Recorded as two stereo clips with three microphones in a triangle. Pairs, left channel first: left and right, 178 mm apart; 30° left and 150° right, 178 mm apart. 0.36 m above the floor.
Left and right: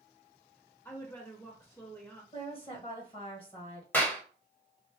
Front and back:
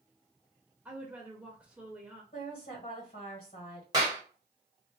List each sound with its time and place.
0.8 s a woman speaking: 140° left, 0.9 m
2.3 s a woman speaking: 45° left, 1.8 m
3.9 s a clap: 160° left, 1.4 m